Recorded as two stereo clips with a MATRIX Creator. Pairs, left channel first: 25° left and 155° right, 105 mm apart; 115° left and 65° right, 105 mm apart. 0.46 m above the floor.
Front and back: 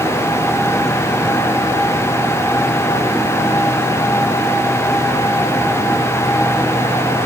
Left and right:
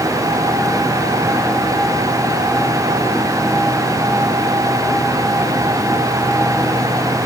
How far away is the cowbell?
I don't hear a cowbell.